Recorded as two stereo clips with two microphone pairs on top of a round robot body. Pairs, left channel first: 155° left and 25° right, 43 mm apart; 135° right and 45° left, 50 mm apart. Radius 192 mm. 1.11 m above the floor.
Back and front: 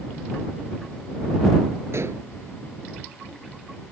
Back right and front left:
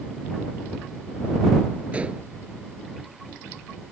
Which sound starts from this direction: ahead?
Dishes clattering, at 1.9 s.